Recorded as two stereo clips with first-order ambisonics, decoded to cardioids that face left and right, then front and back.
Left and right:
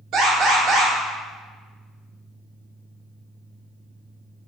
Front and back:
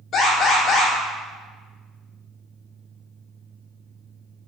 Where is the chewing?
No chewing in this recording.